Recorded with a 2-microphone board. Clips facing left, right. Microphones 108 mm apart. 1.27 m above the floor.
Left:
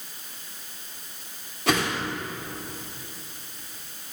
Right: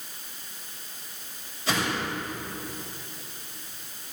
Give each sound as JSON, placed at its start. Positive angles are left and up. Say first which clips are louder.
{"t": 1.7, "sound": "a whoosh", "louder": "left 3 dB", "side_deg": 65, "distance_m": 3.0}